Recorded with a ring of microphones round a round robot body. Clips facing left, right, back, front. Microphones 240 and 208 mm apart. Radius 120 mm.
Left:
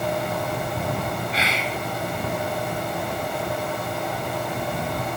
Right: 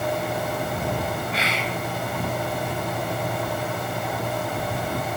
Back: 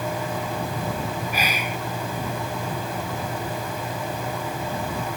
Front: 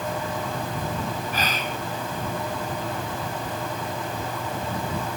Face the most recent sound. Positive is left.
turn(degrees=100)